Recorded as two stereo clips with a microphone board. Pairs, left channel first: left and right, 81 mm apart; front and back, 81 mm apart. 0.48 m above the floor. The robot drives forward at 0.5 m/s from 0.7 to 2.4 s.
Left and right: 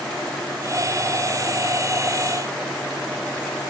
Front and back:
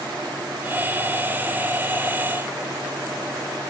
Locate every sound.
Only background noise.